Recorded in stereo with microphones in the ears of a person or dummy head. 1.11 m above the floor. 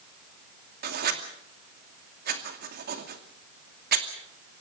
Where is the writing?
55° right (ahead or behind), 2.5 m.